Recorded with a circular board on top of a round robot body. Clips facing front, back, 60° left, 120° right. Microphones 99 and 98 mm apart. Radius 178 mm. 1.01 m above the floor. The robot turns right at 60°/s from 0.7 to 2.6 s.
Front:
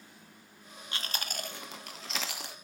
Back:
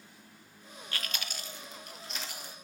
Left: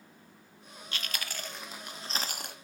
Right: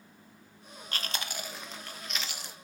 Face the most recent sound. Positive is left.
turn(degrees=30)